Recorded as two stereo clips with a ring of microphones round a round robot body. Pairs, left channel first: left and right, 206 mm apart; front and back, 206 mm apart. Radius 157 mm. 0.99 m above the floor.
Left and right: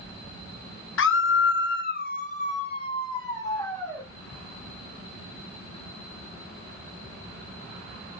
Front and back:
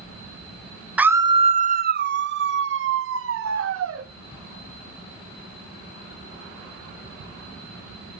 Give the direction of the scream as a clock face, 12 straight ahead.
9 o'clock.